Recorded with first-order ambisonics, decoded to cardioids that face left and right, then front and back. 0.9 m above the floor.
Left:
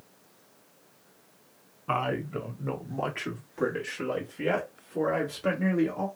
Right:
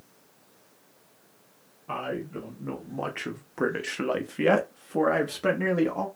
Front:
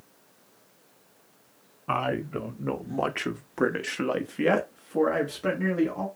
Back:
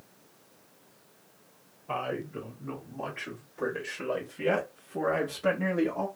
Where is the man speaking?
30° left, 1.3 m; by 6.1 s 85° right, 1.6 m.